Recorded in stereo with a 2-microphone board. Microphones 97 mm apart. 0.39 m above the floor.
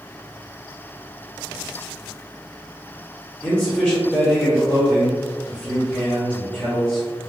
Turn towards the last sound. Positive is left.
turn(degrees=15)  # may be behind; listen again after turning